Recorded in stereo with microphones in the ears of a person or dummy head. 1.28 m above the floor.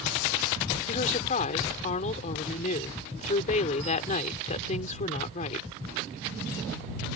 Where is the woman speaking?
35° left (ahead or behind).